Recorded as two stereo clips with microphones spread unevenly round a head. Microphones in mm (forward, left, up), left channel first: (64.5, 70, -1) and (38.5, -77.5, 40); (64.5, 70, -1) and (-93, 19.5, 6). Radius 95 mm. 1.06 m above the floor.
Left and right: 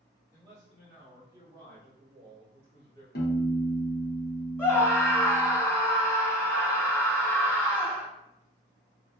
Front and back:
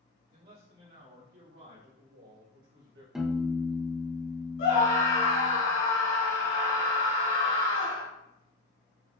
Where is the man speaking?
160° left, 2.5 m; by 3.0 s 155° right, 3 m.